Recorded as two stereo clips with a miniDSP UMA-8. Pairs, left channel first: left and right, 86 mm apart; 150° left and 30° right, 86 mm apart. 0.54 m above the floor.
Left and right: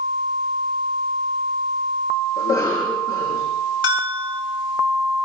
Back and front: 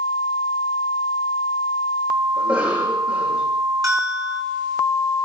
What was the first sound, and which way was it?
A cough, 35° left.